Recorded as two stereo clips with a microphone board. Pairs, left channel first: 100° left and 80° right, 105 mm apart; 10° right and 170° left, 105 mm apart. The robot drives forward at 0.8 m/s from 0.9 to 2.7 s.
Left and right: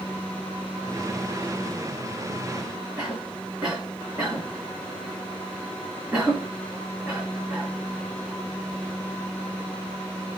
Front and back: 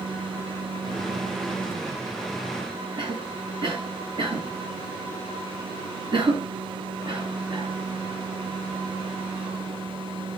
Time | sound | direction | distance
3.0 | a cough | 165° right | 2.5 m